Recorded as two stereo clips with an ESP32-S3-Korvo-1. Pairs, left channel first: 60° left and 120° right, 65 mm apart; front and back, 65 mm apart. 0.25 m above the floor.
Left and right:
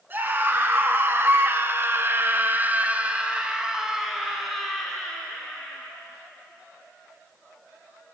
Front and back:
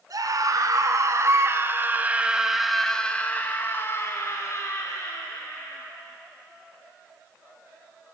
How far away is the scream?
About 2.5 m.